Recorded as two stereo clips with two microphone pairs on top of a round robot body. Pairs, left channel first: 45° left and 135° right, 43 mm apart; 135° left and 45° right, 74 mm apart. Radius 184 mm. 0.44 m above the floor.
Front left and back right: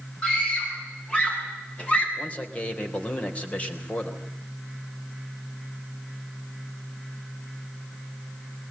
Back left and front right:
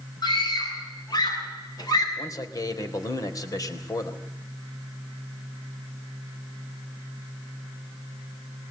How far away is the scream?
About 6.5 m.